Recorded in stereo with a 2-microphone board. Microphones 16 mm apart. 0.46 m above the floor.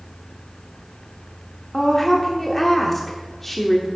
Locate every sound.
1.7 s a woman speaking: 15° left (ahead or behind), 0.8 m